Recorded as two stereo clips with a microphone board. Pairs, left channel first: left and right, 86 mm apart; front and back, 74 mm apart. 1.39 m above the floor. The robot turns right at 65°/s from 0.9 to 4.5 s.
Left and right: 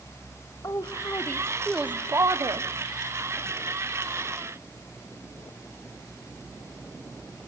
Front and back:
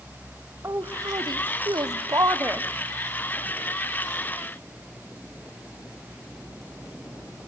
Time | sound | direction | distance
0.6 | a woman speaking | 135° left | 0.8 m